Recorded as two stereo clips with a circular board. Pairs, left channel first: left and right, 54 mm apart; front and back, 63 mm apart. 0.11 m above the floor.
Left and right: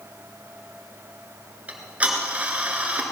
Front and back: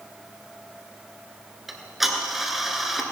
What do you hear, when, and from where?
1.7 s ticking: 95° right, 1.6 m